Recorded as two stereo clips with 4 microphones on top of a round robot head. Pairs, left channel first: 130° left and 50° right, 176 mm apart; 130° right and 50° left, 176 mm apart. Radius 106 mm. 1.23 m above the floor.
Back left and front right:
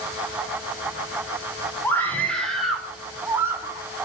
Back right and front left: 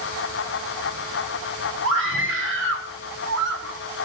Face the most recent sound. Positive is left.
turn(degrees=25)